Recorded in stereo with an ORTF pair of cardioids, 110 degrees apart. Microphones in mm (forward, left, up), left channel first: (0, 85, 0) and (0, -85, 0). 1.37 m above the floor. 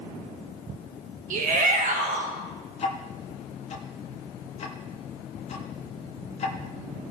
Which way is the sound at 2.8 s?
40° left.